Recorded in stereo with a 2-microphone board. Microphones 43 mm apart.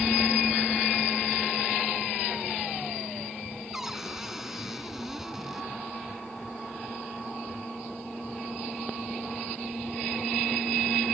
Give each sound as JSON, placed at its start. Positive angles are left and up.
{"t": 3.7, "sound": "a cupboard door", "side_deg": -10}